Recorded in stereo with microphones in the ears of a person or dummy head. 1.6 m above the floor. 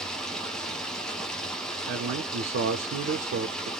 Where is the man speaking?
60° right (ahead or behind), 0.6 m.